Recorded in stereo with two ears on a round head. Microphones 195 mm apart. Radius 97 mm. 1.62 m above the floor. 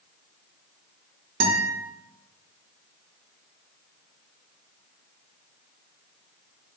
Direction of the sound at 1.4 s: 45° right (ahead or behind).